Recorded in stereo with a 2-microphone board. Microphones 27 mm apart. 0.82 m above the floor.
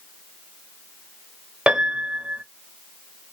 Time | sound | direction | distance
1.7 | a piano | 45° right (ahead or behind) | 0.7 m